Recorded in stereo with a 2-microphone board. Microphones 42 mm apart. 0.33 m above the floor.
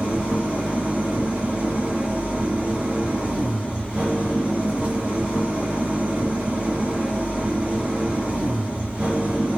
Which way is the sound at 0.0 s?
30° right (ahead or behind).